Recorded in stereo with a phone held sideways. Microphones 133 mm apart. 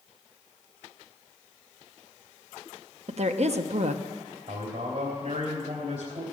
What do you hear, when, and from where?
3.1 s a woman speaking: 55° right (ahead or behind), 0.9 m
4.5 s a man speaking: 60° right (ahead or behind), 3.5 m